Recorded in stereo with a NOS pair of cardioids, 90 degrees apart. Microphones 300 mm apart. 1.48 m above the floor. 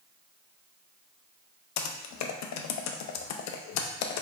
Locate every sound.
1.8 s typing on a keyboard: 65° left, 0.5 m